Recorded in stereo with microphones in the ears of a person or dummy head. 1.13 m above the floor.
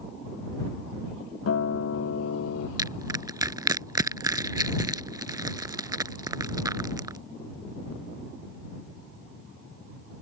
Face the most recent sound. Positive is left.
turn(degrees=-20)  # may be behind; listen again after turning